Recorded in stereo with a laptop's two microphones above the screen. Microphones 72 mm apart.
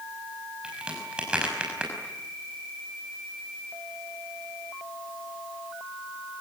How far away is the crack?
About 5.5 m.